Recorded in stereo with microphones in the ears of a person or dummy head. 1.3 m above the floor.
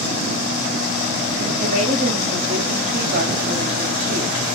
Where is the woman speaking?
55° right (ahead or behind), 5.5 m.